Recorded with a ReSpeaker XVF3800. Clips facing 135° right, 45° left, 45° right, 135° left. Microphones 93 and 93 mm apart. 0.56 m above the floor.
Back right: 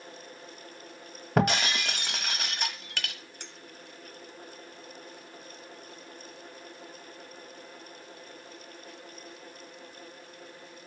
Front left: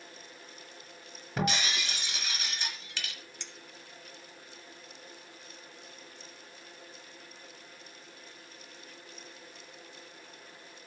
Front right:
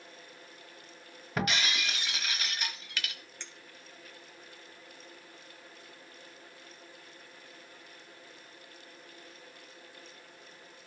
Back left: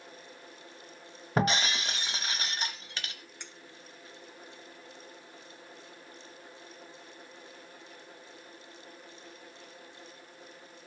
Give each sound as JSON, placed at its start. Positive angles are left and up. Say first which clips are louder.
{"t": 1.4, "sound": "breaking glass", "louder": "back right 6 dB, back left 4 dB", "azimuth_deg": -165, "distance_m": 1.2}
{"t": 3.4, "sound": "a clink", "louder": "back right 2 dB, back left 1 dB", "azimuth_deg": -150, "distance_m": 0.8}